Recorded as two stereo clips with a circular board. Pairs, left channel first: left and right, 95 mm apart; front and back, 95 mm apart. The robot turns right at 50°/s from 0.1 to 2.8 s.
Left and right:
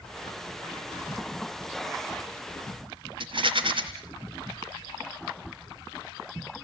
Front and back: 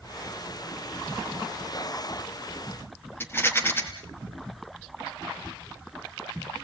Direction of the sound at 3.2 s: 65° right.